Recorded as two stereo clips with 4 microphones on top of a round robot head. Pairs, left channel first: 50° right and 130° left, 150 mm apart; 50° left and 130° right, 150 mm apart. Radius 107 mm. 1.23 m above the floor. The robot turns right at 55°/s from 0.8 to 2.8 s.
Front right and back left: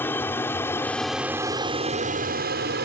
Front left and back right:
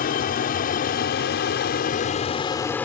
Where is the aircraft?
25° left; by 2.9 s 130° left.